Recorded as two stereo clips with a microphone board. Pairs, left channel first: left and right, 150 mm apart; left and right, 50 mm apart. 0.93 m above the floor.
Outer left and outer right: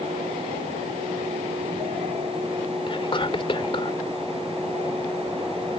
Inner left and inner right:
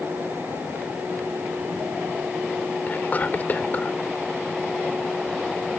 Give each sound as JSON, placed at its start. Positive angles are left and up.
{"t": 2.9, "sound": "whispering", "side_deg": 35}